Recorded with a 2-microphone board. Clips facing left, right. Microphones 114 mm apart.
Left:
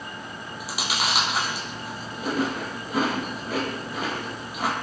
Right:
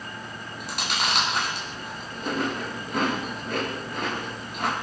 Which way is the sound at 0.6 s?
5° left (ahead or behind).